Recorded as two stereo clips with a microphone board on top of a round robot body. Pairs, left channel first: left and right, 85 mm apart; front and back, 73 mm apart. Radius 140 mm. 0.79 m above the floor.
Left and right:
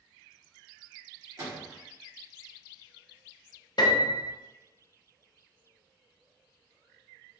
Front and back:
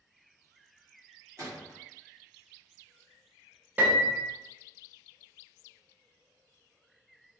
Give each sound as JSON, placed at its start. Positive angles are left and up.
{"t": 1.4, "sound": "a gunshot", "azimuth_deg": -140, "distance_m": 1.5}
{"t": 3.8, "sound": "a piano", "azimuth_deg": 115, "distance_m": 0.6}